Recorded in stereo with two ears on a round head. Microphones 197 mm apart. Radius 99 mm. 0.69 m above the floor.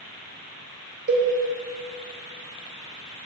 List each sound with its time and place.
1.1 s a cowbell: 50° right (ahead or behind), 0.7 m